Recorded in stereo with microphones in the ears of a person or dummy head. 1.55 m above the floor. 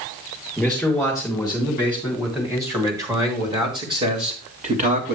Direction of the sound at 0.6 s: Centre (ahead or behind).